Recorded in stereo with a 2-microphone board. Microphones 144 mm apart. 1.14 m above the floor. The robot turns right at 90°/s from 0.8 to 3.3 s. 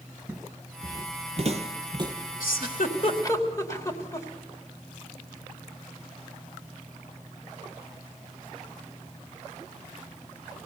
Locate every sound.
0.3 s footsteps: centre (ahead or behind), 1.3 m; by 2.1 s 20° right (ahead or behind), 1.8 m
2.4 s a giggle: 75° left (ahead or behind), 2.5 m; by 4.3 s 20° left (ahead or behind), 2.5 m